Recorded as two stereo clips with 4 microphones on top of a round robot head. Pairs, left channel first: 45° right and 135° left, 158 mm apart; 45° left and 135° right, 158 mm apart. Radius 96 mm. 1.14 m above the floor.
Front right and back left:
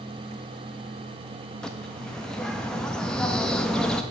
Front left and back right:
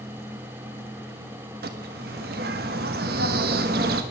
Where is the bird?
130° right, 0.5 m.